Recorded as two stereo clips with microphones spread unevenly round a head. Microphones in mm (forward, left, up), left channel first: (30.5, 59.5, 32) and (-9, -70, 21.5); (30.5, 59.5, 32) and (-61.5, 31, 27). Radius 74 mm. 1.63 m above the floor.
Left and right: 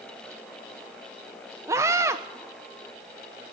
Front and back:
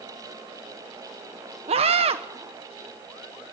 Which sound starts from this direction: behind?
A scream, at 1.7 s.